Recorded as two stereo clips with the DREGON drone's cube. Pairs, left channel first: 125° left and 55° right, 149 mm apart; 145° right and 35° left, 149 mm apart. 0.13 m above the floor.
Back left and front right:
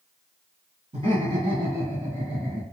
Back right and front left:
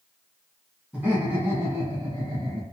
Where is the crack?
I don't hear a crack.